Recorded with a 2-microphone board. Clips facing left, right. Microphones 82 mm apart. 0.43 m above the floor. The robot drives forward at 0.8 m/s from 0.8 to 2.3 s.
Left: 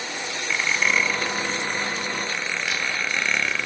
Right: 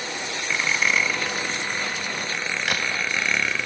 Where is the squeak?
Centre (ahead or behind), 0.7 m.